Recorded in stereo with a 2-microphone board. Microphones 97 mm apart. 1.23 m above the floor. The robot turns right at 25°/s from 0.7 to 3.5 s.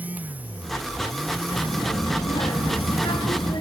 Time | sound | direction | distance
1.5 | a child speaking | 70° left | 1.2 m